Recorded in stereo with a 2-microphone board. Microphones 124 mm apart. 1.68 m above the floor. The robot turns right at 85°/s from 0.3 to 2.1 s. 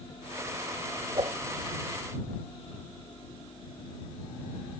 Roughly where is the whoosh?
Right.